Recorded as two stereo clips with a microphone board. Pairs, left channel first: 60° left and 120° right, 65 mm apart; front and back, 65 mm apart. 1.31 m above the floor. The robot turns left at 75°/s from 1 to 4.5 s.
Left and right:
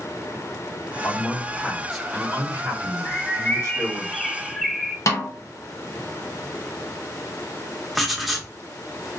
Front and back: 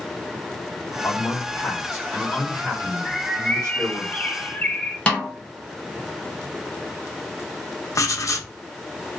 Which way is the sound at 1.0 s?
35° left.